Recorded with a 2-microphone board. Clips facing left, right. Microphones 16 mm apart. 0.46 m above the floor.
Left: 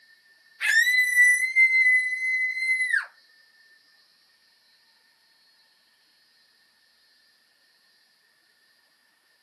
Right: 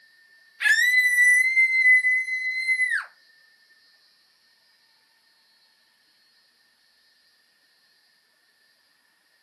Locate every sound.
0.6 s a scream: 25° right (ahead or behind), 1.8 m; by 3.1 s 20° right (ahead or behind), 4 m